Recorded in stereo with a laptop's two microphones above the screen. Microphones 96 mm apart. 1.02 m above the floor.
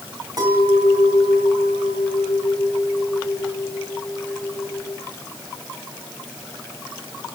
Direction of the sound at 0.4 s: 45° right (ahead or behind).